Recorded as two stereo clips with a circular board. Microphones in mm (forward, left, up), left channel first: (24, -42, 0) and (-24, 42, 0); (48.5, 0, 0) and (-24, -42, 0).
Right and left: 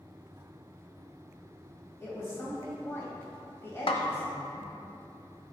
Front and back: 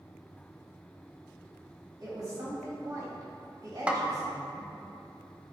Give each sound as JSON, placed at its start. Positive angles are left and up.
{"t": 2.0, "sound": "a woman speaking", "azimuth_deg": -120, "distance_m": 2.0}
{"t": 3.9, "sound": "a snare drum", "azimuth_deg": -75, "distance_m": 0.7}